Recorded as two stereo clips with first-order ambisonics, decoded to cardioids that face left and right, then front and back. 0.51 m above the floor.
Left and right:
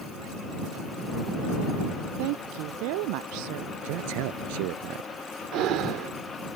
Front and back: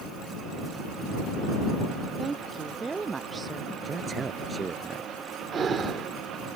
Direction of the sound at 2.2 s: 105° right.